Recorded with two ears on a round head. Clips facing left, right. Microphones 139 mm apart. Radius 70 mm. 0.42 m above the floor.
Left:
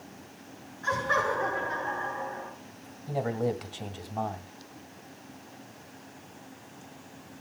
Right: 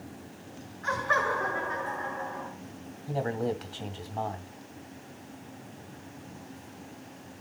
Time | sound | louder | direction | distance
0.8 | laughter | left 1 dB | 35° left (ahead or behind) | 6 m
3.1 | a man speaking | left 1 dB | 15° left (ahead or behind) | 1.9 m